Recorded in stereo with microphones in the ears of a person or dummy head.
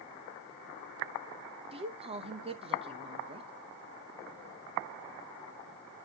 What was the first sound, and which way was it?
A woman speaking, 25° right (ahead or behind).